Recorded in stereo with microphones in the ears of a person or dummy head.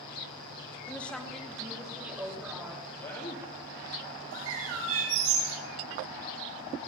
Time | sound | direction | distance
0.9 | a woman speaking | 10° left (ahead or behind) | 1.2 m
3.0 | a man speaking | 25° left (ahead or behind) | 2 m
4.3 | a bird | 80° right | 4.5 m